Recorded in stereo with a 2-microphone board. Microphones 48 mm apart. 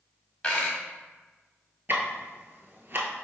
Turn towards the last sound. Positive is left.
turn(degrees=-50)  # may be behind; listen again after turning